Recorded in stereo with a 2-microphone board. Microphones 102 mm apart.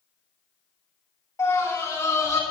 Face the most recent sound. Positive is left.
turn(degrees=35)  # may be behind; listen again after turning